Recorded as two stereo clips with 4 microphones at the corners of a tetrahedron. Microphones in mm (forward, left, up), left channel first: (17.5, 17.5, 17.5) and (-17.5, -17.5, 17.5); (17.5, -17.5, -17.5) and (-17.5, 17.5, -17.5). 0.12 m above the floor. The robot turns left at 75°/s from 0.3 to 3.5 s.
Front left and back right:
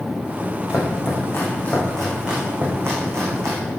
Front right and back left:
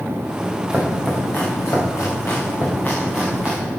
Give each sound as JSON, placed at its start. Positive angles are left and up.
{"t": 0.7, "sound": "chopping", "azimuth_deg": 60, "distance_m": 4.5}